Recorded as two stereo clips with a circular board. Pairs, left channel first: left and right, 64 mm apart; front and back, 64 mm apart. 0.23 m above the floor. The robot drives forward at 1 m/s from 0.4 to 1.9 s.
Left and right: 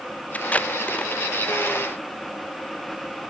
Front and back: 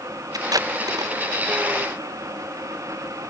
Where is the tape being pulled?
160° left.